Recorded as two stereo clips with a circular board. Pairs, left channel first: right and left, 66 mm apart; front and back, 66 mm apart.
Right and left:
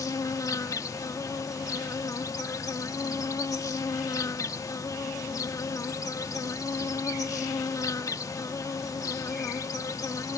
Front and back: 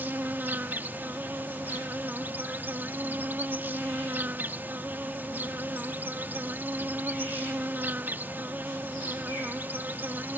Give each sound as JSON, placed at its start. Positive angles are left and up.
{"t": 0.0, "sound": "an insect", "azimuth_deg": -120}